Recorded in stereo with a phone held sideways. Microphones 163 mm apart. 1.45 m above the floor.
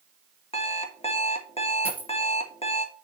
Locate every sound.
0.5 s an alarm clock: 40° left (ahead or behind), 1.2 m
1.9 s a dropped coin: 10° right (ahead or behind), 2.5 m